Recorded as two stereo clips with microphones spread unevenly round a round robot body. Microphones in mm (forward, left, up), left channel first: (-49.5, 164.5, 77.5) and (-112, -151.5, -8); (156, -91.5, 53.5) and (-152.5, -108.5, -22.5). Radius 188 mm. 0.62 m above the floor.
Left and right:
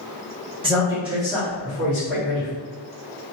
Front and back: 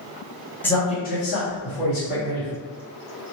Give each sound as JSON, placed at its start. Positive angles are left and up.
{"t": 0.6, "sound": "a man speaking", "azimuth_deg": -100, "distance_m": 1.0}